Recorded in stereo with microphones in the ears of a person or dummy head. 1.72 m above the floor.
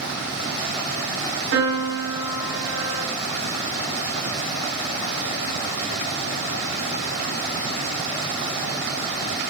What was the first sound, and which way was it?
A piano, 55° right (ahead or behind).